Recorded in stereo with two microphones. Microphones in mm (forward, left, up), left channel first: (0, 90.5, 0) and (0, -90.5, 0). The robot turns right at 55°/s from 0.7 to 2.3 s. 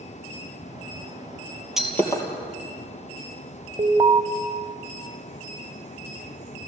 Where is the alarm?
30° right (ahead or behind), 1.2 m.